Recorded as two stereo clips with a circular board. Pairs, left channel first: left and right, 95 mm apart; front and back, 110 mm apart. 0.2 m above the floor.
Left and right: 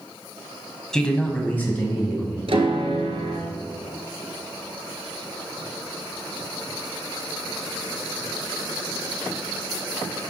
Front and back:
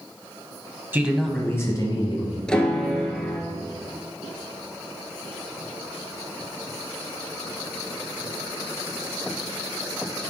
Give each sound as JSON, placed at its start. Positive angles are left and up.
{"t": 0.9, "sound": "a man speaking", "azimuth_deg": 155, "distance_m": 1.0}
{"t": 2.5, "sound": "a piano", "azimuth_deg": -80, "distance_m": 1.1}